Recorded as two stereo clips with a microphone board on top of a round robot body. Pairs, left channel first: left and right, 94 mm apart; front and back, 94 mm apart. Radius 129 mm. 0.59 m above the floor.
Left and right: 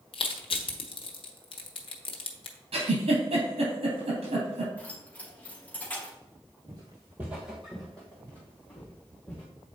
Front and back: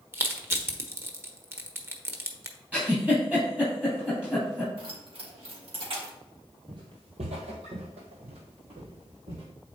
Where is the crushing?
115° left, 1.2 m.